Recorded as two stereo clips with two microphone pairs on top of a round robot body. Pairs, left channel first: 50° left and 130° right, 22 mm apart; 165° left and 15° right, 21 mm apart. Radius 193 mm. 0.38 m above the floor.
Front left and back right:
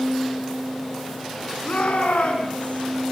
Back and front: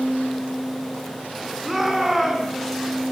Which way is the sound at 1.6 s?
70° left.